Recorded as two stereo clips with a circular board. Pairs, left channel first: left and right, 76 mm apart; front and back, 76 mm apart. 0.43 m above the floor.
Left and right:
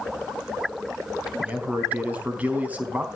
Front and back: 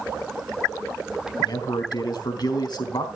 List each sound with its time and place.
1.4 s a man speaking: 20° right, 3.5 m